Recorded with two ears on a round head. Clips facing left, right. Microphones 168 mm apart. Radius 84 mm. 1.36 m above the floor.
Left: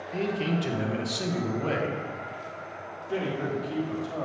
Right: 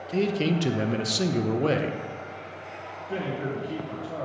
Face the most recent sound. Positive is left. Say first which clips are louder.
# left 1 dB
turn(degrees=-15)  # may be behind; listen again after turning